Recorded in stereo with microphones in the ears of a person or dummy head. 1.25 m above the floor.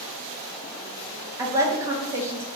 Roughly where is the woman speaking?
Right.